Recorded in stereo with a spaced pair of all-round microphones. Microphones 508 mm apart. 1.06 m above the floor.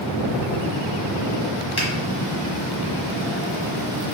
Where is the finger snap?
70° left (ahead or behind), 1.0 m.